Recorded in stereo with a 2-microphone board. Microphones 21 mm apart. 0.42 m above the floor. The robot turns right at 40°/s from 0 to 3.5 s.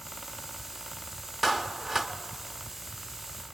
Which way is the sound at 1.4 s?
10° right (ahead or behind).